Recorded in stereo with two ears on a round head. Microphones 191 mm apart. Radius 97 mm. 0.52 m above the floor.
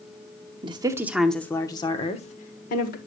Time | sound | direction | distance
0.6 | a woman speaking | 25° right (ahead or behind) | 0.8 m